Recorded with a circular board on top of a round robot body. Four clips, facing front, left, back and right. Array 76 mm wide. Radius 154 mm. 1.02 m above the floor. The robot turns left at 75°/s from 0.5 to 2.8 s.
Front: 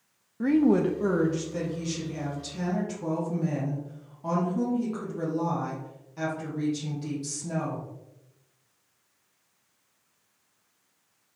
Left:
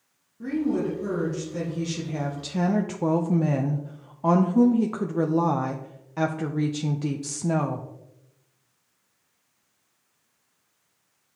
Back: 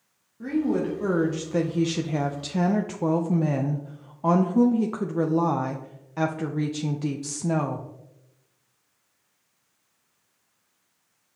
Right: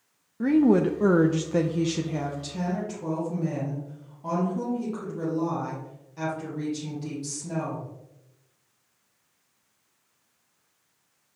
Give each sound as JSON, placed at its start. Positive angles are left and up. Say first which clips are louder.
{"t": 0.4, "sound": "a woman speaking", "louder": "right 6 dB, front 3 dB", "azimuth_deg": -50, "distance_m": 0.7}